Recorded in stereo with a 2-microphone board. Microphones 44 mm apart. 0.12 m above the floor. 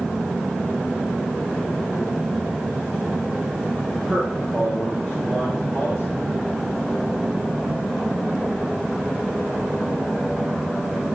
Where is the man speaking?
20° left (ahead or behind), 3 m.